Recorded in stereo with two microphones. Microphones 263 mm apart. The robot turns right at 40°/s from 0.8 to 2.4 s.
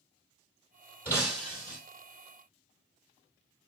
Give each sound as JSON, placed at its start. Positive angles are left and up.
{"t": 1.1, "sound": "breaking glass", "side_deg": 5, "distance_m": 2.5}